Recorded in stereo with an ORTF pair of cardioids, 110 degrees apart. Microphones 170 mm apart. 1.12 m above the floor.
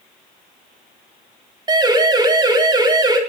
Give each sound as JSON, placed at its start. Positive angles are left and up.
{"t": 1.7, "sound": "a siren", "azimuth_deg": -25, "distance_m": 4.5}